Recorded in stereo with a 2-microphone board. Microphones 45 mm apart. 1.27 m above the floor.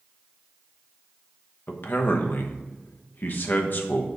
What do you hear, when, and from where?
1.7 s a man speaking: 50° left (ahead or behind), 1.0 m